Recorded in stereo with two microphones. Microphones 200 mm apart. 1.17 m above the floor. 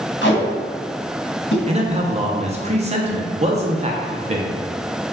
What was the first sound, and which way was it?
Tape being pulled, 75° left (ahead or behind).